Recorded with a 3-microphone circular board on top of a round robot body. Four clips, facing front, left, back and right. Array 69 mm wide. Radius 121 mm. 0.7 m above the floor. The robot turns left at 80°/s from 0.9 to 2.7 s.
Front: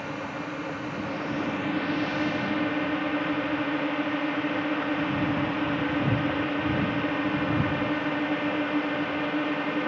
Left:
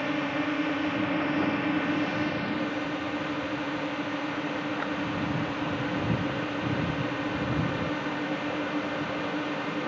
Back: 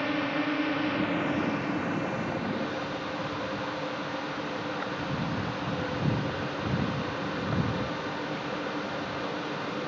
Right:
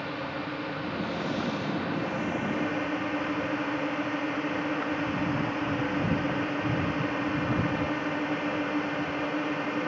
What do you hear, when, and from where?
0.0 s a drone: 130° left; by 9.9 s 15° right